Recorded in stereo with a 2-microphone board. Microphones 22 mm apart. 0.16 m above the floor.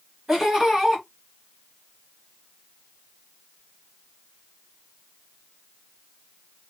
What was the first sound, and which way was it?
Laughter, 15° right (ahead or behind).